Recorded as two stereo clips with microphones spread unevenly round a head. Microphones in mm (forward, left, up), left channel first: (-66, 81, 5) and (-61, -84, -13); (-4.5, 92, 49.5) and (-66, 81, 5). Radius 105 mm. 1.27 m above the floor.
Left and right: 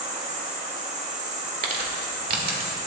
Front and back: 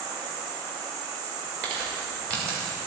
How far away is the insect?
About 3 m.